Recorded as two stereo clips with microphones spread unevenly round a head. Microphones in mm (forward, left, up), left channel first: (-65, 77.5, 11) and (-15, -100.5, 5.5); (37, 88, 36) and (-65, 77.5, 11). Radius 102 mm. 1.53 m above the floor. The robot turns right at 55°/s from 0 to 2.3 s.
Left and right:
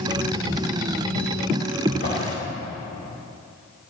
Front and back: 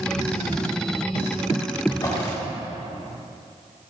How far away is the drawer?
About 3 m.